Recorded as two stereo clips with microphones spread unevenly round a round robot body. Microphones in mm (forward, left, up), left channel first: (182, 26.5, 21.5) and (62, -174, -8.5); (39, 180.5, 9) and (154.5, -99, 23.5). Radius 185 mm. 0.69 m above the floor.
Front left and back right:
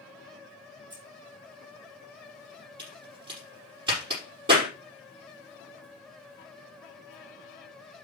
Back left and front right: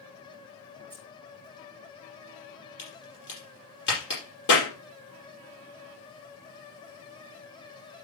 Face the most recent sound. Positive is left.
turn(degrees=175)